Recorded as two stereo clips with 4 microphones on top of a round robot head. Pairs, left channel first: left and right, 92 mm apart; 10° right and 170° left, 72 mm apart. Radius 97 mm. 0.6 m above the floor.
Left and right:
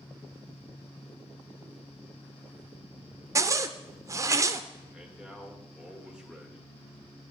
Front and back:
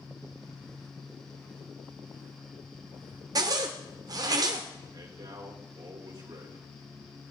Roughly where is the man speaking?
Behind.